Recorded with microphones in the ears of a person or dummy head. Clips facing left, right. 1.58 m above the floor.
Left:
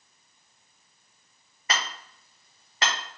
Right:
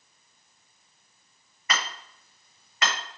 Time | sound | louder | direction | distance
1.7 | hammering | even | 35° left (ahead or behind) | 1.7 m